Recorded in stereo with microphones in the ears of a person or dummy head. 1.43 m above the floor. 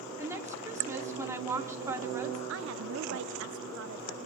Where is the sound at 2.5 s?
80° right, 0.7 m.